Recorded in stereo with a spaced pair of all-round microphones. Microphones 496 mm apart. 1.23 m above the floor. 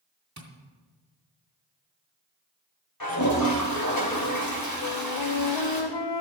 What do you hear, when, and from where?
0.4 s tapping: 35° right (ahead or behind), 2 m
3.0 s a toilet flushing: 45° left (ahead or behind), 3.5 m
4.8 s a flute: 60° left (ahead or behind), 0.6 m